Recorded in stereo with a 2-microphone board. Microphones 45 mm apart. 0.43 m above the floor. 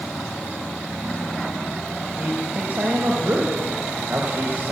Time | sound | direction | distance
2.2 | a man speaking | 50° right (ahead or behind) | 1.7 m